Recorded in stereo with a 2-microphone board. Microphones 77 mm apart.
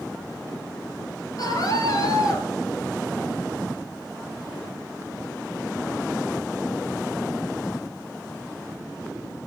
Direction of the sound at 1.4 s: 55° left (ahead or behind).